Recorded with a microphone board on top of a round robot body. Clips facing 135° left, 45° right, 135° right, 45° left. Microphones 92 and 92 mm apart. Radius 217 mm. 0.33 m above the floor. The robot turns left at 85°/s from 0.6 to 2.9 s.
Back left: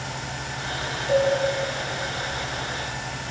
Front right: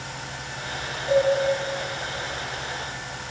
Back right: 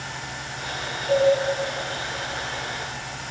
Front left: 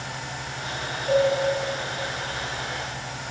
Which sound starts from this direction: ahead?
A cowbell, at 1.1 s.